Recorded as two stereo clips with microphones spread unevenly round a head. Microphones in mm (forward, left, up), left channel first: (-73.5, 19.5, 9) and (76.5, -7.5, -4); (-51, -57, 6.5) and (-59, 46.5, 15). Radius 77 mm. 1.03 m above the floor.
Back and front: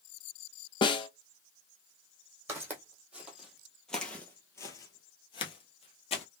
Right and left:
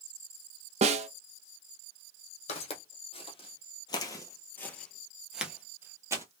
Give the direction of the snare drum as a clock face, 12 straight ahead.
8 o'clock.